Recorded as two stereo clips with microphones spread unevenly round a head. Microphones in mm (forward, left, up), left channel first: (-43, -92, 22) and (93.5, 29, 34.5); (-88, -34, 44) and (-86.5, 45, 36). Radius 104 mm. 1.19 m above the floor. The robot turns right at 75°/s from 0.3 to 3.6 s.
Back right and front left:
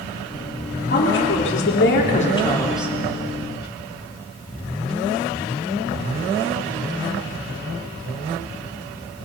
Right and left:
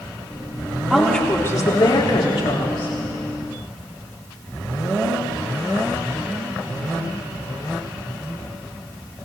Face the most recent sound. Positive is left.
turn(degrees=15)